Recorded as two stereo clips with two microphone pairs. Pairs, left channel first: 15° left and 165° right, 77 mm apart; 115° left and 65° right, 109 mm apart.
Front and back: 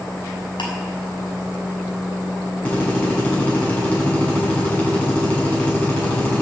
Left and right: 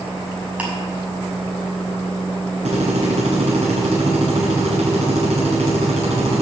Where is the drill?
55° right, 7 m.